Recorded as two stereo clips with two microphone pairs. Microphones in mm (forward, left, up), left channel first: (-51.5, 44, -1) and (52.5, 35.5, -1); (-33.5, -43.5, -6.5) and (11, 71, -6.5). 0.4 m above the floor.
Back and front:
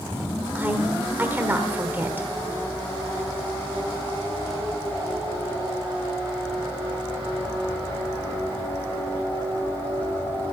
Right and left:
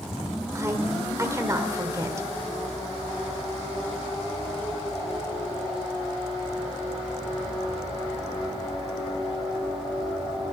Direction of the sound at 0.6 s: 45° left.